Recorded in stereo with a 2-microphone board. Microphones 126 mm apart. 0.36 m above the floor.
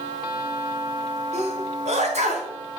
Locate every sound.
1.3 s a sneeze: 70° right (ahead or behind), 3.5 m